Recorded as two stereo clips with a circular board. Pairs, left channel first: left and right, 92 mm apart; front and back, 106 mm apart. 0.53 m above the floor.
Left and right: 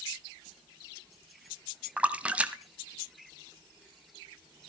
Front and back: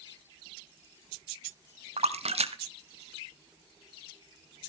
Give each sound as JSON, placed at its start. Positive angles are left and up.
{"t": 2.0, "sound": "a splash", "azimuth_deg": -165, "distance_m": 1.0}